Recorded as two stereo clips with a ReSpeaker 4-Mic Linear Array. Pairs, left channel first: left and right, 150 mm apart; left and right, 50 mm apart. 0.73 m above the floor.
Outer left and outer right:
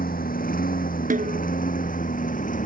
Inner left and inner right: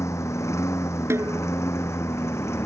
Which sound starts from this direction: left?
A lawn mower, at 0.0 s.